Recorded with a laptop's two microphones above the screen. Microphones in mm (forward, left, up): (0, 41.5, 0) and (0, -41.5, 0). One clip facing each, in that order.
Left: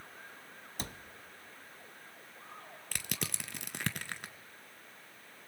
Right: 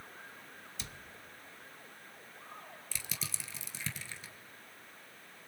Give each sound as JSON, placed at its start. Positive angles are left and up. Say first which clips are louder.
{"t": 0.8, "sound": "a cupboard door", "louder": "left 7 dB", "side_deg": 45, "distance_m": 1.0}
{"t": 2.9, "sound": "crushing", "louder": "left 6 dB", "side_deg": 65, "distance_m": 1.0}